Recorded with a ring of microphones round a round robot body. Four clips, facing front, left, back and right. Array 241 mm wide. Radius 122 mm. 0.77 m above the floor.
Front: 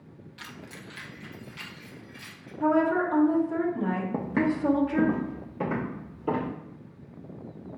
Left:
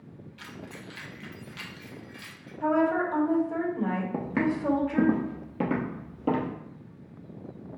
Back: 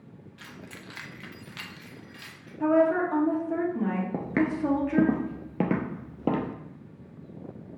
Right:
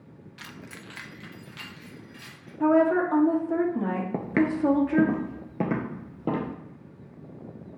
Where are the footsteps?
90° right, 0.7 m; by 6.5 s 170° right, 1.4 m.